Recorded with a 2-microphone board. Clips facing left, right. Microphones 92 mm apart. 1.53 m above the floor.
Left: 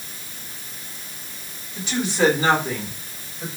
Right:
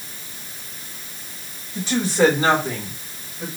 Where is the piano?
No piano in this recording.